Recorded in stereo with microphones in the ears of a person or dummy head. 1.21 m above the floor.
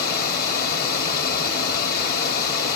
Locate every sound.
0.0 s running water: 50° left (ahead or behind), 1.3 m